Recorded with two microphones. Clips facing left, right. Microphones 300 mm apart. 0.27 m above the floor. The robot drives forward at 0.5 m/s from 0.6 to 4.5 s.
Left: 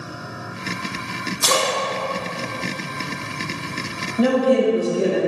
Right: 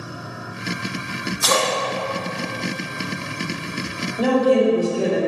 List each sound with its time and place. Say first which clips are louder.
1.4 s a splash: even; 45° left (ahead or behind), 0.7 m; by 3.4 s 20° left (ahead or behind), 1.5 m
4.2 s a woman speaking: even; centre (ahead or behind), 1.2 m